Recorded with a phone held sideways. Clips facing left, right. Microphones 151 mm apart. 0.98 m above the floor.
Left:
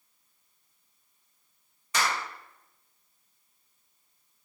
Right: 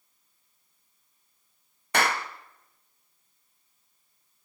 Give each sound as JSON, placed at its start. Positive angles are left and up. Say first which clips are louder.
{"t": 1.9, "sound": "a clap", "louder": "right 4 dB", "side_deg": -65, "distance_m": 0.9}